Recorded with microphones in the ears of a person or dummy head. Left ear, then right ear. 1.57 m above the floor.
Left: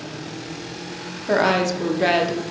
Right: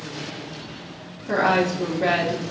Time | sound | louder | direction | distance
1.3 | a woman speaking | left 1 dB | 85° left | 0.9 m